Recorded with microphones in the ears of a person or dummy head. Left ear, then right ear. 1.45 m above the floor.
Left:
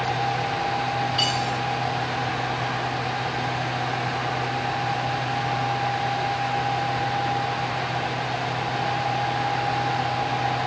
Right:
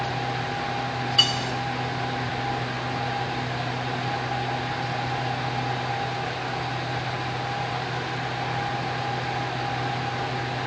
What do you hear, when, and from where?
1.2 s cutlery clinking: 10° right (ahead or behind), 0.5 m